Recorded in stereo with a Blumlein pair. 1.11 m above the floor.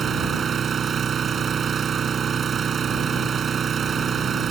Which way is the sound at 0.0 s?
20° right.